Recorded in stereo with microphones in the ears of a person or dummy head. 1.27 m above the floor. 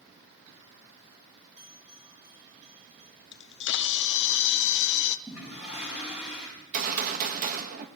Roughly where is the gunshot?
Right.